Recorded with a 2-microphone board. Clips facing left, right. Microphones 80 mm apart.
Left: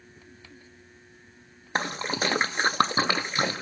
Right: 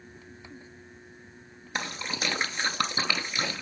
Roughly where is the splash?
Left.